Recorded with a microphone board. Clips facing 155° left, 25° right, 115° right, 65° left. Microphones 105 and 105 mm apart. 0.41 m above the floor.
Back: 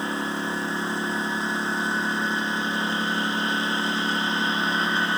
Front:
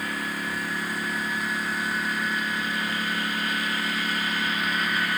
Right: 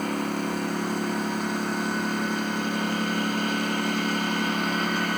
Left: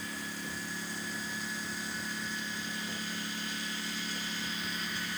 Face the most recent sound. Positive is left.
turn(degrees=-140)